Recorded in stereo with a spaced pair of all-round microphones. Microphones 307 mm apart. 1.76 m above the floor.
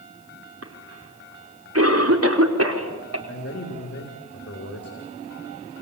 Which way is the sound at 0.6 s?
55° right (ahead or behind).